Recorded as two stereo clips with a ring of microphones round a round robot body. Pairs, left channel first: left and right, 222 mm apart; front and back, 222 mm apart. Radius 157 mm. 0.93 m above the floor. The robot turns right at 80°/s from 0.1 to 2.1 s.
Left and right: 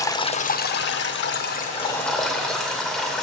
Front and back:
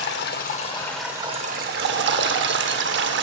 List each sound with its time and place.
0.0 s running water: 20° left, 0.7 m; by 3.2 s straight behind, 0.7 m